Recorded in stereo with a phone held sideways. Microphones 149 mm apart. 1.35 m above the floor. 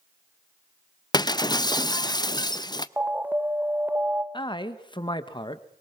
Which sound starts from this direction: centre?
An alarm, at 3.0 s.